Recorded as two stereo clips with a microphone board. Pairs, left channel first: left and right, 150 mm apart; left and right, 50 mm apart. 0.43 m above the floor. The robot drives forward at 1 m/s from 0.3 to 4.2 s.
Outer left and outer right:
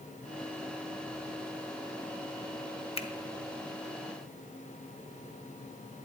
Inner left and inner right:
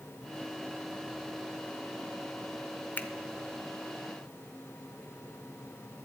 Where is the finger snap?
40° left (ahead or behind), 0.9 m.